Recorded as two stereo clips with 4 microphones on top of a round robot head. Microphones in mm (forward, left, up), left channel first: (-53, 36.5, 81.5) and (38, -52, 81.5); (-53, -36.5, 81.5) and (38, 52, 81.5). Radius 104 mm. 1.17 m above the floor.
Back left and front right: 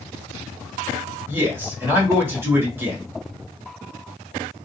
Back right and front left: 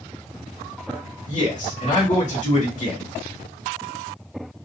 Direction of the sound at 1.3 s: 115° right.